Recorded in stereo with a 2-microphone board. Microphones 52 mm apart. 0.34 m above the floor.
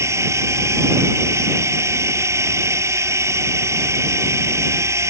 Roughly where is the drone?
Right.